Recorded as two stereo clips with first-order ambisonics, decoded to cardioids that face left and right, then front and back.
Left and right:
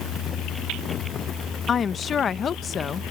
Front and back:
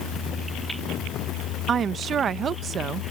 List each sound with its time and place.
1.7 s a woman speaking: 135° left